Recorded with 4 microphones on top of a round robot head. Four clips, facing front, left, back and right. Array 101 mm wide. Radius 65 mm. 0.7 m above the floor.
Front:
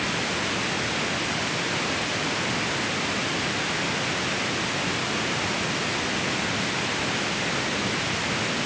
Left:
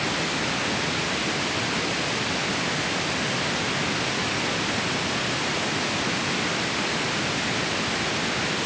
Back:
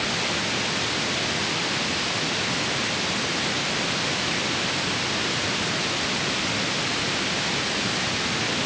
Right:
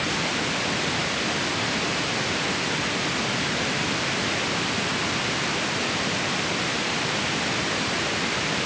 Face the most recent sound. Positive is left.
No sound to turn to.